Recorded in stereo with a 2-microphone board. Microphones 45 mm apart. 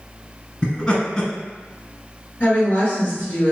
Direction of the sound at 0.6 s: 20° left (ahead or behind).